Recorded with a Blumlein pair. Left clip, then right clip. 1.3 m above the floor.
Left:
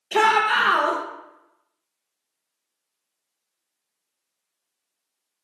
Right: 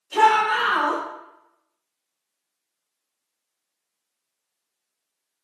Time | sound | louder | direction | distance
0.1 | a shout | right 1 dB | 50° left | 0.5 m